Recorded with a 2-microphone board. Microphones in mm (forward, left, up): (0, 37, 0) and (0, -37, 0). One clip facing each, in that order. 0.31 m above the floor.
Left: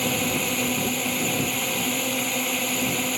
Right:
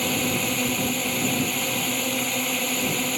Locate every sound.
0.0 s a drone: centre (ahead or behind)